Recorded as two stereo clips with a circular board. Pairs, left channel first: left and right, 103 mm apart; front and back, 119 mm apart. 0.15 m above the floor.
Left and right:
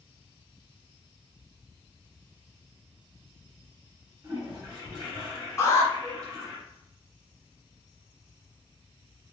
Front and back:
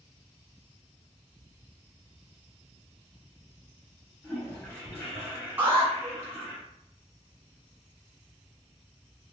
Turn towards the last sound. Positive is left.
turn(degrees=125)